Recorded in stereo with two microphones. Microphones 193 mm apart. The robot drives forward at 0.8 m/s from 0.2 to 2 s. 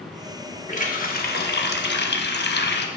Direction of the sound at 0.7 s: 40° left (ahead or behind).